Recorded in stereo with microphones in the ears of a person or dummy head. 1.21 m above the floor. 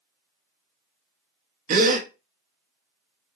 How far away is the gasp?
About 0.6 m.